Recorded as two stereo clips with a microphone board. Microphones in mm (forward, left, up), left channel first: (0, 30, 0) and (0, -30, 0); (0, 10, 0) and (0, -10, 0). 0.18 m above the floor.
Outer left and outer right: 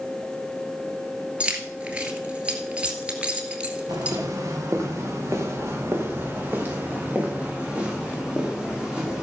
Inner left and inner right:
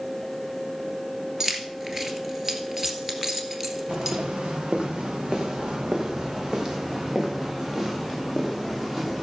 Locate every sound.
1.4 s keys jangling: 20° right (ahead or behind), 1.9 m
3.9 s footsteps: 65° right (ahead or behind), 4 m; by 9.2 s 10° right (ahead or behind), 6 m